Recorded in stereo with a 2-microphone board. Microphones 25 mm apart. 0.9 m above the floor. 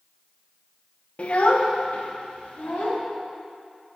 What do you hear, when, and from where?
1.2 s a child speaking: 50° left (ahead or behind), 0.6 m; by 3.0 s 65° left (ahead or behind), 1.7 m